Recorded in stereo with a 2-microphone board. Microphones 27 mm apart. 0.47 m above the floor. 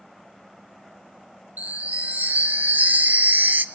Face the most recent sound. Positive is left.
turn(degrees=-70)  # may be behind; listen again after turning